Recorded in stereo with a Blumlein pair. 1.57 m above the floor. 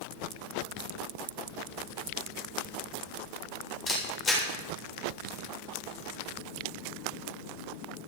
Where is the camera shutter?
20° left, 7.5 m.